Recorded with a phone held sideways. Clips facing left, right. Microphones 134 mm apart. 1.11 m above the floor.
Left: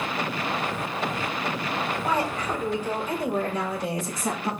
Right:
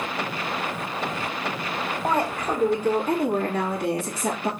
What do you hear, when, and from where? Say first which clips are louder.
2.0 s a woman speaking: right 4 dB; 50° right (ahead or behind), 3.5 m; by 4.5 s 70° right (ahead or behind), 3 m